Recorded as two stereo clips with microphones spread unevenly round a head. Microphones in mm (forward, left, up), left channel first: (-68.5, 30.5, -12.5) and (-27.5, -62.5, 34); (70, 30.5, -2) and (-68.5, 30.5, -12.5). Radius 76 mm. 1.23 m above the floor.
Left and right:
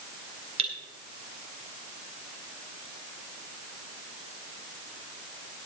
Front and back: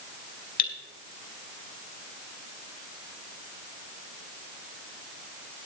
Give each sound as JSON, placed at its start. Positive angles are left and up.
{"t": 0.6, "sound": "cutlery clinking", "azimuth_deg": -30, "distance_m": 2.0}